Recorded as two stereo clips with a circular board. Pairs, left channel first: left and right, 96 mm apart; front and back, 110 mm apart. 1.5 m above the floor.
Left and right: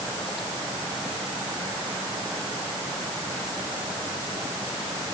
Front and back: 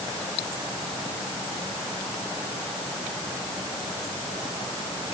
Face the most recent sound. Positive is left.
No sound to turn to.